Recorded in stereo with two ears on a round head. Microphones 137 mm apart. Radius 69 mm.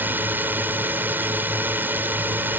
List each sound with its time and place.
0.0 s a drone: 15° right (ahead or behind)